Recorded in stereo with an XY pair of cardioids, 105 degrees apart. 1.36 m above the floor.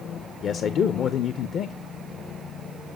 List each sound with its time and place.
0.4 s a man speaking: 55° left, 0.6 m